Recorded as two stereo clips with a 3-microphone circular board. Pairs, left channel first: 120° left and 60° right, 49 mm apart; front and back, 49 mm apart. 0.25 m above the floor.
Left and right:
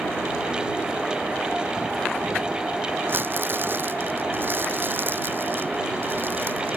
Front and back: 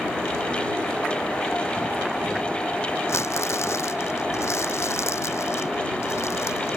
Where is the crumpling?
15° right.